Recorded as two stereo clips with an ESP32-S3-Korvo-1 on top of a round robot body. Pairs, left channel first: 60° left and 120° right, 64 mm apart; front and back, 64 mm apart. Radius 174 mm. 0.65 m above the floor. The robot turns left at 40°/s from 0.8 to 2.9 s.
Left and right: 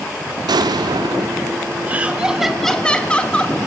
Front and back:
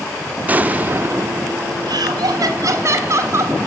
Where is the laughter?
175° left, 2.0 m; by 3.6 s 135° left, 2.0 m.